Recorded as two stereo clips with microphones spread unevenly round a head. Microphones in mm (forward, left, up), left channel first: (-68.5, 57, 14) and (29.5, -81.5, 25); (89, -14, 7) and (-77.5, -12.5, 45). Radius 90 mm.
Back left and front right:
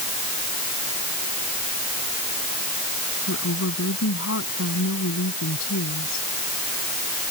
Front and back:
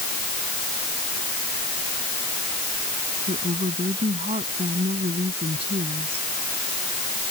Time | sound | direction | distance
3.3 | a woman speaking | 120° left | ?